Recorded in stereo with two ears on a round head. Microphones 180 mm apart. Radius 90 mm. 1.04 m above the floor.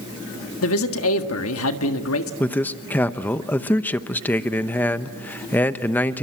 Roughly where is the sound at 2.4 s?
Centre.